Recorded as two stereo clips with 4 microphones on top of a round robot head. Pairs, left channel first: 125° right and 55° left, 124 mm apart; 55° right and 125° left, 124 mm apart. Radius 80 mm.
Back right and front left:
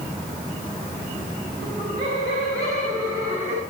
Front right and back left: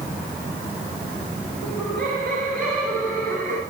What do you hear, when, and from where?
1.6 s laughter: 110° left, 6.5 m; by 3.6 s 125° left, 6 m